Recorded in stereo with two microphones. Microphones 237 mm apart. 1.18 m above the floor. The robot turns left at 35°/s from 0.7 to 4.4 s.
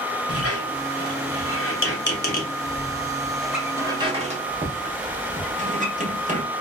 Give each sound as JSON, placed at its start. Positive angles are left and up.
{"t": 0.3, "sound": "a squeak", "side_deg": 85, "distance_m": 1.1}